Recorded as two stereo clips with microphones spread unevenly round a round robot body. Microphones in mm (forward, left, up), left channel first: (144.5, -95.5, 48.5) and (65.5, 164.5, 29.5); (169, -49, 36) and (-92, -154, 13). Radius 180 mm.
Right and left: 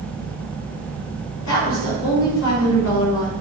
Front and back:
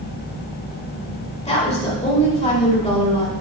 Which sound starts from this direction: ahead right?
A woman speaking, at 1.4 s.